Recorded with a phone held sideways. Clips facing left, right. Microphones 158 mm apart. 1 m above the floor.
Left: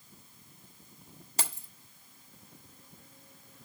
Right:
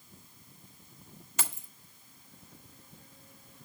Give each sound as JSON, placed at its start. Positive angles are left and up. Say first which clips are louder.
{"t": 1.4, "sound": "keys jangling", "louder": "left 1 dB", "side_deg": 40, "distance_m": 1.2}